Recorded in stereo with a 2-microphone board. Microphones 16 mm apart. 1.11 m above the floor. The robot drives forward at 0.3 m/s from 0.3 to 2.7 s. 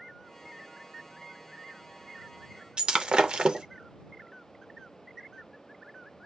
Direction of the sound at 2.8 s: 65° right (ahead or behind).